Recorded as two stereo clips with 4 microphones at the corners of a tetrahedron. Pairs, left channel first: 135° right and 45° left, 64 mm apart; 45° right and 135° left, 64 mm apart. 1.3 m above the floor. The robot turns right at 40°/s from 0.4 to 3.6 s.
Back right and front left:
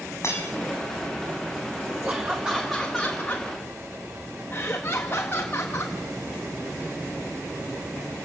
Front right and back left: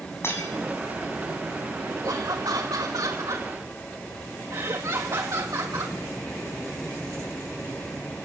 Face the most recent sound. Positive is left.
turn(degrees=165)